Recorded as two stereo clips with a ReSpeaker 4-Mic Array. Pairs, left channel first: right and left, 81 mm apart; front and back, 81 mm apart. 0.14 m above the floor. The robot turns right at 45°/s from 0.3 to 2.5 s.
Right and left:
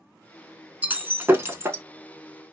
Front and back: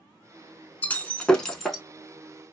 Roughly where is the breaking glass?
Ahead left.